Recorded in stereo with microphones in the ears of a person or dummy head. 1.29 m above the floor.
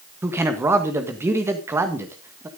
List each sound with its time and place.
0.2 s a man speaking: 10° right (ahead or behind), 1.7 m